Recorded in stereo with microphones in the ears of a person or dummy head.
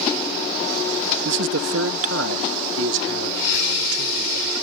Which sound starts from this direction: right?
A man speaking, at 1.2 s.